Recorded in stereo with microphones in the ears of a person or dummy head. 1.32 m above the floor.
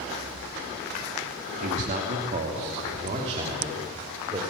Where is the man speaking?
50° right (ahead or behind), 2.5 m; by 4.4 s 30° right (ahead or behind), 4.5 m.